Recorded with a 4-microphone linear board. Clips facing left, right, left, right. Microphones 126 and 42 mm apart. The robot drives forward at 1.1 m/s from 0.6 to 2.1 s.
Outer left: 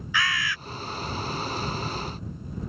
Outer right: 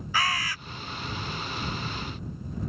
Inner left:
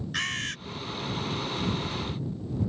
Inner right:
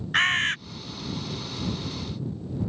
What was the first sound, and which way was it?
A bird, 40° right (ahead or behind).